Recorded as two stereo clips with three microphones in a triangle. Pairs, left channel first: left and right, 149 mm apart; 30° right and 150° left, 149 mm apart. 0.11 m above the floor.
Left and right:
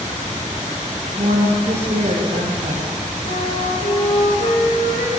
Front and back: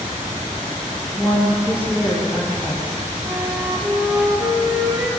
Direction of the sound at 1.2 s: 130° right.